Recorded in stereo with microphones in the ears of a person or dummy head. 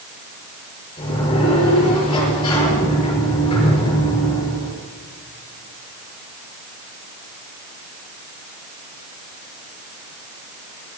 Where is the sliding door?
25° left (ahead or behind), 5.5 m.